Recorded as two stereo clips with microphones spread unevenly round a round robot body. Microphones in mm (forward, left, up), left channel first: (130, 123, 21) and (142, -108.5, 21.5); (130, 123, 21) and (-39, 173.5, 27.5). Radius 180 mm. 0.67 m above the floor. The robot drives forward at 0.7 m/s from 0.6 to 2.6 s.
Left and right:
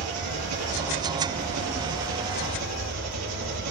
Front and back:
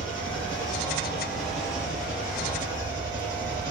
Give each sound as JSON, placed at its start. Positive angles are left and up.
{"t": 0.0, "sound": "an engine running", "azimuth_deg": -95, "distance_m": 3.5}